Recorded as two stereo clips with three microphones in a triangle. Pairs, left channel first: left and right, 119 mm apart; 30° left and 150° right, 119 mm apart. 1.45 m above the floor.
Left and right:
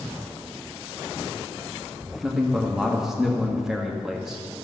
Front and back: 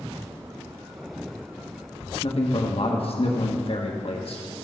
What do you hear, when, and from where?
2.2 s a man speaking: 5° right, 1.5 m